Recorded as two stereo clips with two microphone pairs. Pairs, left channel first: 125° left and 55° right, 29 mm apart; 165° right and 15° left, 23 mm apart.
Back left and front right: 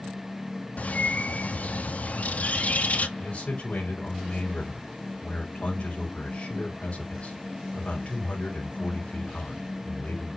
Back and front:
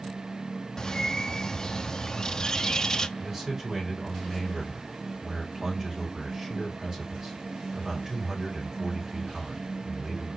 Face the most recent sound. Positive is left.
turn(degrees=75)